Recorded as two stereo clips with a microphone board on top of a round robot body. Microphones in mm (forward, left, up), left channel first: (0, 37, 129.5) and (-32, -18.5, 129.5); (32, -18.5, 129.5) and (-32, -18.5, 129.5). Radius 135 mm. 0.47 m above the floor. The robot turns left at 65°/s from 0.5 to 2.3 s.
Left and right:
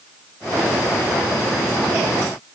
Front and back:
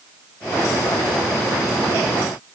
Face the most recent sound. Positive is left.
No sound to turn to.